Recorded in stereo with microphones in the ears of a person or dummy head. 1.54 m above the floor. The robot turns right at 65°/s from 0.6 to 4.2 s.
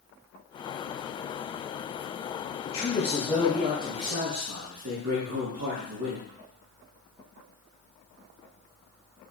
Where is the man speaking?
140° left, 1.2 m; by 6.3 s 120° right, 1.2 m.